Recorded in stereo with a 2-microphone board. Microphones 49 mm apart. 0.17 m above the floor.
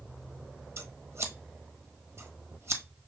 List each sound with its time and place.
0.8 s scissors: 60° right (ahead or behind), 0.9 m